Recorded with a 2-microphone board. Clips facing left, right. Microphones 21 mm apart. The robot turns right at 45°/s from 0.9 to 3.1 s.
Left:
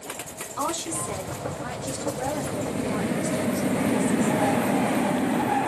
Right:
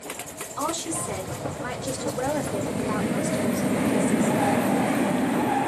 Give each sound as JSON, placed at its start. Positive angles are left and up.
{"t": 0.6, "sound": "a woman speaking", "azimuth_deg": 175, "distance_m": 2.5}